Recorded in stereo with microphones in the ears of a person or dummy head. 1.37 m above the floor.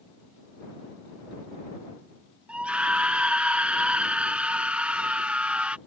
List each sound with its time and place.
2.5 s a scream: 10° right (ahead or behind)